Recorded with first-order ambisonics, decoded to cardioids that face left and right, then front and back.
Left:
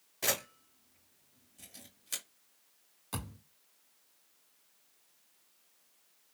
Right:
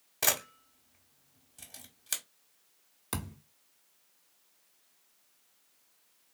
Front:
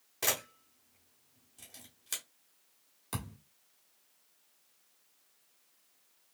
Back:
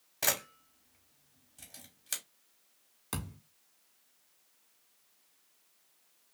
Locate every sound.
0.2 s a camera shutter: 90° right, 1.6 m
3.1 s a thud: 105° right, 1.5 m